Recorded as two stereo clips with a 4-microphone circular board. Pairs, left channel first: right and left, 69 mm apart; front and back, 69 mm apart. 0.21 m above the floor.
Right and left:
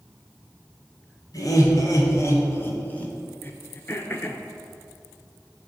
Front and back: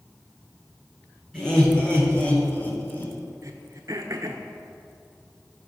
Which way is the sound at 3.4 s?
145° right.